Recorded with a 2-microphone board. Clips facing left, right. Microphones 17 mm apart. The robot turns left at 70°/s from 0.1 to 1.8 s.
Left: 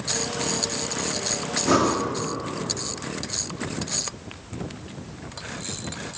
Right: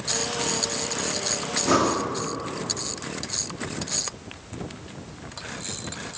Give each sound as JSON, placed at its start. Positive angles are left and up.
{"t": 1.6, "sound": "breathing", "side_deg": 5, "distance_m": 1.4}